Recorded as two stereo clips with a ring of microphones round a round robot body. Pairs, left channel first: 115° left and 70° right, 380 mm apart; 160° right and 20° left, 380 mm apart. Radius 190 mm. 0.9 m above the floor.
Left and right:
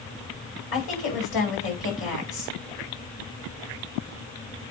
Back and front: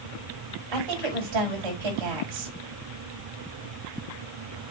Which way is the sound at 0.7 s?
55° left.